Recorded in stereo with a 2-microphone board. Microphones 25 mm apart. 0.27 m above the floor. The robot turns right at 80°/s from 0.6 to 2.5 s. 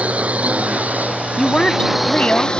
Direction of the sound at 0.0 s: 120° right.